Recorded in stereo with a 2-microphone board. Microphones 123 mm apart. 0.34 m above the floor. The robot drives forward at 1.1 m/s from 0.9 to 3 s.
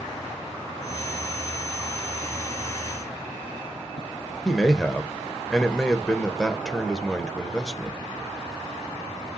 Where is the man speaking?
5° left (ahead or behind), 0.8 m.